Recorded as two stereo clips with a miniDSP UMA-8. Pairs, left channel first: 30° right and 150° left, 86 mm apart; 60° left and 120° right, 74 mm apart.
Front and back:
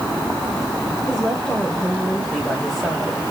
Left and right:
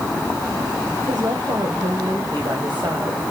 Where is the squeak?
No squeak in this recording.